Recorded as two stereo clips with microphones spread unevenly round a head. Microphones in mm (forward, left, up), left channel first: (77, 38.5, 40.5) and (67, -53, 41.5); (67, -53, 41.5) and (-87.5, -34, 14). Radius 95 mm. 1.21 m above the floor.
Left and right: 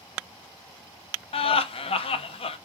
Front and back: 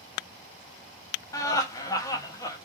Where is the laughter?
70° left, 0.5 m.